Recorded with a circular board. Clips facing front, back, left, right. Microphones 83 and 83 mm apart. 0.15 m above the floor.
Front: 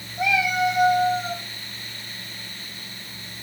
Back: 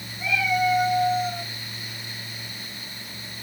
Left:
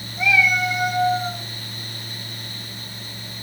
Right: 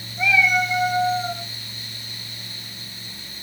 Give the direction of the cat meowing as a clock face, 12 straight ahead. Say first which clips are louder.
Front 2 dB, even; 12 o'clock.